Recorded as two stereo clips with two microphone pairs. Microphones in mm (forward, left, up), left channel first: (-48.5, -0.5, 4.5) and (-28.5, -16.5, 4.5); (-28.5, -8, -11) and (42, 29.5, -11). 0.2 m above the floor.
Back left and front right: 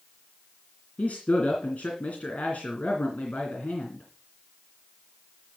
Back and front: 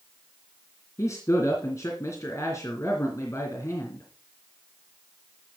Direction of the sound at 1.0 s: 155° left.